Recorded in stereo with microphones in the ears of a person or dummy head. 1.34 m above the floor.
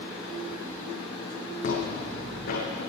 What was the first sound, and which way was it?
Footsteps, 55° left (ahead or behind).